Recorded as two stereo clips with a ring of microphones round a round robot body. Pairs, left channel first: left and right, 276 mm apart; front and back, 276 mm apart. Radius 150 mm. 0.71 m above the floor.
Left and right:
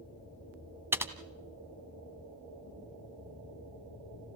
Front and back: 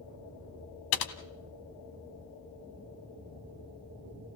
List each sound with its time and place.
0.9 s typing on a keyboard: 10° right, 1.5 m